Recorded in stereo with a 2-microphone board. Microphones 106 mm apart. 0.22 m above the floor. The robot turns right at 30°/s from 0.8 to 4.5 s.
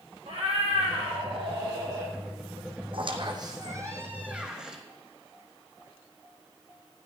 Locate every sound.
0.3 s a cat meowing: 75° right, 3 m; by 2.1 s 35° right, 3 m
2.9 s a squeak: 55° right, 2 m; by 4.8 s 10° right, 2 m